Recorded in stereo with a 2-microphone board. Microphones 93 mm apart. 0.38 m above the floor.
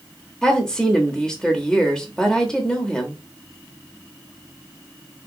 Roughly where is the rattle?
I don't hear a rattle.